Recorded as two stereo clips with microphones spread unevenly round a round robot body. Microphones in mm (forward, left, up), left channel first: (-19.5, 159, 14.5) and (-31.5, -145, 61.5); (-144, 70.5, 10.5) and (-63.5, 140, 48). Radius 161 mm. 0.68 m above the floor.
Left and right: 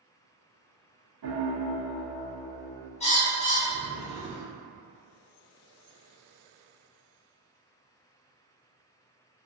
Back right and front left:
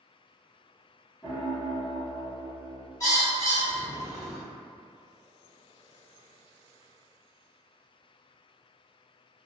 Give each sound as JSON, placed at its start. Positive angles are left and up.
{"t": 1.2, "sound": "a piano", "azimuth_deg": -90, "distance_m": 0.8}
{"t": 3.0, "sound": "a bird", "azimuth_deg": 160, "distance_m": 1.5}